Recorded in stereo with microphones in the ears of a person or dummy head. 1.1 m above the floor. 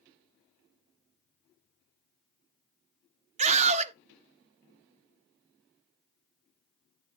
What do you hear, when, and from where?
3.4 s a scream: 35° right (ahead or behind), 1.0 m